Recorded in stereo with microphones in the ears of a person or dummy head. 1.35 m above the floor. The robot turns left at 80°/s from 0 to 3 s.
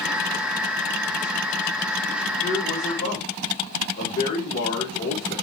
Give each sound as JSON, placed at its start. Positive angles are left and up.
{"t": 2.4, "sound": "a man speaking", "azimuth_deg": 150, "distance_m": 3.5}